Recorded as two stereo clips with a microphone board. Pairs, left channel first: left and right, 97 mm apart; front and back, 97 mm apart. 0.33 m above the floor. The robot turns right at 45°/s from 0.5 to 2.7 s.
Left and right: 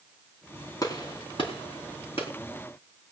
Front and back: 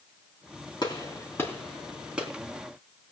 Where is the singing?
No singing in this recording.